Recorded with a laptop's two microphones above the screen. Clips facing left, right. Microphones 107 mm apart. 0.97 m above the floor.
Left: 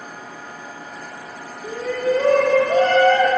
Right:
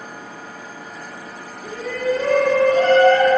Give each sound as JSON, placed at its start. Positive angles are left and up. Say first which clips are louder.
{"t": 1.6, "sound": "a shout", "louder": "left 1 dB", "side_deg": 25, "distance_m": 0.6}